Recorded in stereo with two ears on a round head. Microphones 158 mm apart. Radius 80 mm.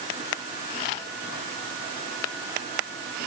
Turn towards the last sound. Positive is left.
No sound to turn to.